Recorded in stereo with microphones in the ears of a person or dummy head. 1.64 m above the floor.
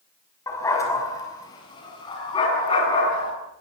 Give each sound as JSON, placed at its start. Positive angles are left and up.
{"t": 0.5, "sound": "a dog barking", "side_deg": 15, "distance_m": 5.5}